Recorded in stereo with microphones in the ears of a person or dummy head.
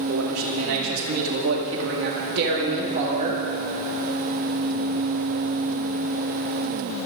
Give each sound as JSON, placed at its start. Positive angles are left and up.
{"t": 0.1, "sound": "a man speaking", "side_deg": -85, "distance_m": 2.5}